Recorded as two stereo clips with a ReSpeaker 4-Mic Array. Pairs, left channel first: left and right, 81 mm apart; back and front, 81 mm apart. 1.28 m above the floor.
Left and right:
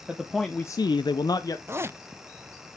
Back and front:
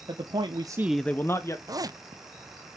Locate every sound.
0.1 s a man speaking: 10° right, 1.2 m; by 1.6 s 130° left, 1.3 m
1.7 s a zipper: 35° right, 0.5 m